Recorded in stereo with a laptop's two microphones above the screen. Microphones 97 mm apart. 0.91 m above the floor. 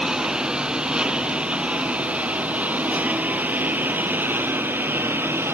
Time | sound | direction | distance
0.0 | a lawn mower | 10° right (ahead or behind) | ?